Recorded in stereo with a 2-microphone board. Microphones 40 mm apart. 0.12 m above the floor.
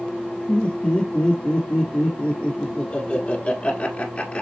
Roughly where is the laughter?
Left.